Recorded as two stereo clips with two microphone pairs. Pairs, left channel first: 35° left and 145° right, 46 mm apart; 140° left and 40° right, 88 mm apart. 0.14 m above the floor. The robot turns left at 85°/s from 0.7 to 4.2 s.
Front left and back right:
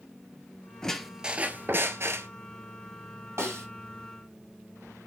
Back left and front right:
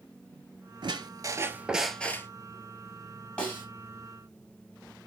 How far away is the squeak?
About 0.5 m.